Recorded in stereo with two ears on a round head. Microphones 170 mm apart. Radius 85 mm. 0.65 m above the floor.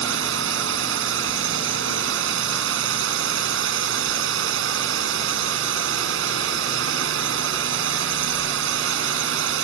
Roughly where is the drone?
Right.